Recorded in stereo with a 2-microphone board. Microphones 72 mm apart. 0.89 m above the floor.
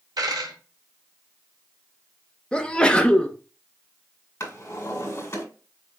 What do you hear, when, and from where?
0.2 s a dropped coin: 65° right (ahead or behind), 1.6 m
2.5 s a sneeze: 15° left (ahead or behind), 0.6 m
4.4 s a drawer: 40° left (ahead or behind), 1.8 m